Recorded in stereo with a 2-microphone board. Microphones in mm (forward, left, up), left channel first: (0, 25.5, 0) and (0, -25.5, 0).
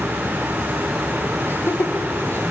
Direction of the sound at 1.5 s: 55° left (ahead or behind).